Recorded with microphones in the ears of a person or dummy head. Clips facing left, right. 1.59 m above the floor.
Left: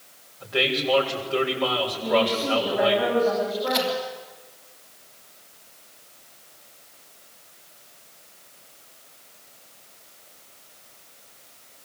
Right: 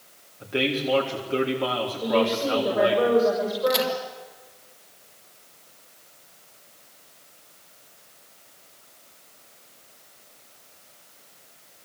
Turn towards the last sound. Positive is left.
turn(degrees=-55)  # may be behind; listen again after turning